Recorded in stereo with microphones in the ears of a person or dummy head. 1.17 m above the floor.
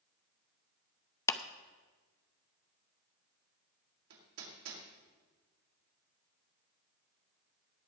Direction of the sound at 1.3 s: 20° left (ahead or behind).